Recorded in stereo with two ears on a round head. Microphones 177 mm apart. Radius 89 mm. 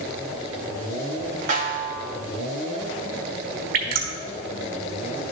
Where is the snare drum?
45° right (ahead or behind), 2.5 m.